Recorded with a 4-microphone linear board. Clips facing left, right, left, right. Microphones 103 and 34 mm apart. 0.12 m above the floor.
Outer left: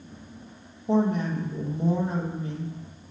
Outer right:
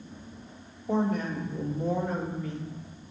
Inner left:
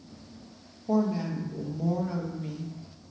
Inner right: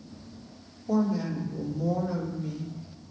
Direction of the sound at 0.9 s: 30° left (ahead or behind).